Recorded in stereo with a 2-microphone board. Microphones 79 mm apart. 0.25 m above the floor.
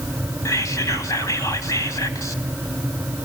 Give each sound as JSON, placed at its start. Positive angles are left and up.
{"t": 0.5, "sound": "whispering", "side_deg": 45, "distance_m": 1.5}